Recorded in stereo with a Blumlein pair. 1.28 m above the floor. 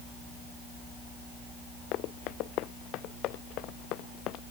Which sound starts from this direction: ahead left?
Running footsteps, at 1.9 s.